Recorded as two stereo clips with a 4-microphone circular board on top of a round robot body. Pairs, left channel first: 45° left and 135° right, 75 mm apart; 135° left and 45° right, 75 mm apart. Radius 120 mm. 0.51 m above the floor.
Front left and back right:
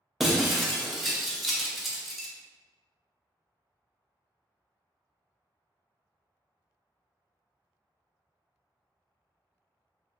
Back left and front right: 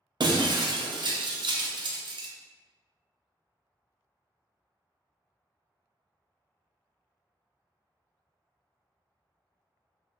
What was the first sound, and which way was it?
Breaking glass, 45° right.